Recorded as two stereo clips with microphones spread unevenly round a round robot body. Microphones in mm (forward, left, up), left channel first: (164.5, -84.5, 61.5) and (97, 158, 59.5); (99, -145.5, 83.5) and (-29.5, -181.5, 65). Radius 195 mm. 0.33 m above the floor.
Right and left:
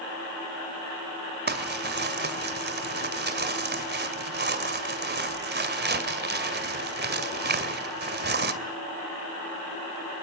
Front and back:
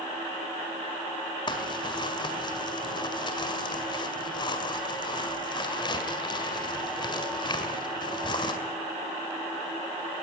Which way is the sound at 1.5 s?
70° left.